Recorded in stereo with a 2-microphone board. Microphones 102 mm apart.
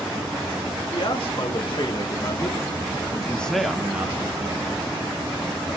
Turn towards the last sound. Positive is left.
turn(degrees=-35)  # may be behind; listen again after turning